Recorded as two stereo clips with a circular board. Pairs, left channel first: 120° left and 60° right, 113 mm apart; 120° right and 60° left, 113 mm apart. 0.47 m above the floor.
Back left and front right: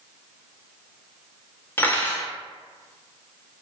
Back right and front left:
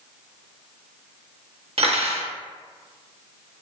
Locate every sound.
1.8 s cutlery clinking: 50° left, 0.5 m